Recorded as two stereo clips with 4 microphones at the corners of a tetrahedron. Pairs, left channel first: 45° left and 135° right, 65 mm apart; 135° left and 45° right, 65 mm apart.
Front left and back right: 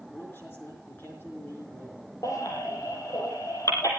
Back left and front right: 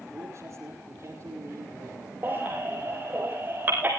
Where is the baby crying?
15° left, 5 m.